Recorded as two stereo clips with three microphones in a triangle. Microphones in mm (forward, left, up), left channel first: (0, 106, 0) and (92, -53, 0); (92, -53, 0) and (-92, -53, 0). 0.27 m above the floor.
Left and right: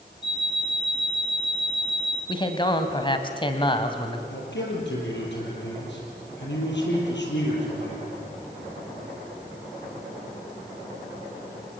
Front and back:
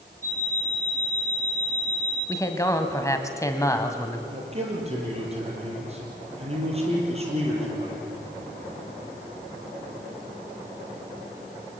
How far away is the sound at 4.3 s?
About 6.5 m.